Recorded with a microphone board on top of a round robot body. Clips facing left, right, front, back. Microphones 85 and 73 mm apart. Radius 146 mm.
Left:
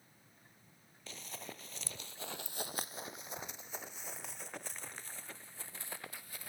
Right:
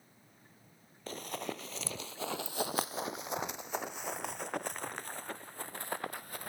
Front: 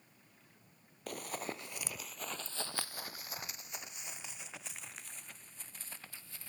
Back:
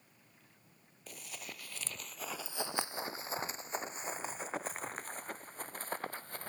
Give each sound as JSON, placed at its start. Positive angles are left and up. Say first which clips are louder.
{"t": 1.1, "sound": "running footsteps", "louder": "right 10 dB, front 8 dB", "azimuth_deg": -40}